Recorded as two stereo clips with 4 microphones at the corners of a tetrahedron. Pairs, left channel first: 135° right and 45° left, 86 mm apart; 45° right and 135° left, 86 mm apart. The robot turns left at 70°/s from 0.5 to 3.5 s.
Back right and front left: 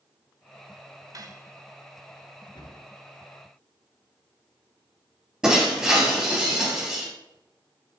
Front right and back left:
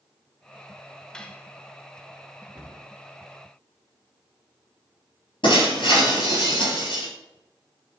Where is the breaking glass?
35° right, 3.5 m.